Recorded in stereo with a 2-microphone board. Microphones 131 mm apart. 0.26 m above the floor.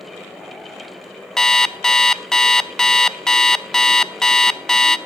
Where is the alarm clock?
5° left (ahead or behind), 0.5 m.